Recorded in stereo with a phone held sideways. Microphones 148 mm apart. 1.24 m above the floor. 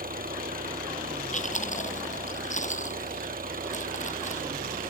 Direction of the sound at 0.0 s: 80° right.